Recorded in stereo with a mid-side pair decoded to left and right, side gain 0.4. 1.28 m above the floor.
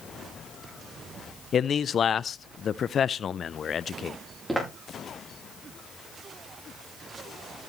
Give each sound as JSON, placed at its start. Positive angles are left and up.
{"t": 1.5, "sound": "a man speaking", "azimuth_deg": 55, "distance_m": 0.6}
{"t": 4.5, "sound": "footsteps", "azimuth_deg": -15, "distance_m": 9.5}